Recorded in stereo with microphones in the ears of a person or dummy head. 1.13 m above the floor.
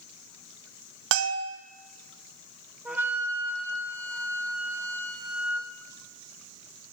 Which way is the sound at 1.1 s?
80° right.